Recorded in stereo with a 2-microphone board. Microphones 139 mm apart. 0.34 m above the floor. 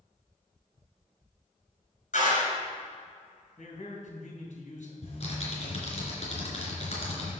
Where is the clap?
65° left (ahead or behind), 4.5 m.